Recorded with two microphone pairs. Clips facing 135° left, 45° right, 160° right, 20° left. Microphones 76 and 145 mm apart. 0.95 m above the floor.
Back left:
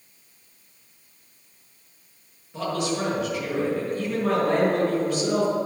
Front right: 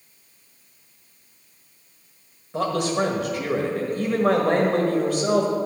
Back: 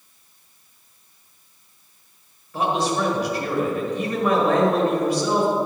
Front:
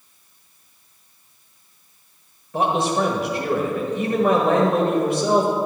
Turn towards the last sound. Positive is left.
turn(degrees=0)